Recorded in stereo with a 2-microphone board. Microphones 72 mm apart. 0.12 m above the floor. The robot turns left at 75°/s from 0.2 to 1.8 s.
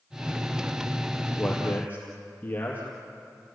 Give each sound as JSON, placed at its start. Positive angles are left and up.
{"t": 1.4, "sound": "a man speaking", "side_deg": 0, "distance_m": 4.0}